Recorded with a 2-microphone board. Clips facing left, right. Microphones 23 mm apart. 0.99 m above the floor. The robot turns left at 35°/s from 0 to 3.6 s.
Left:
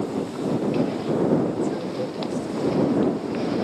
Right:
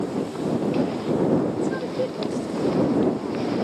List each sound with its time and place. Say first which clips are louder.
1.6 s a woman speaking: right 1 dB; 100° right; by 3.5 s 160° right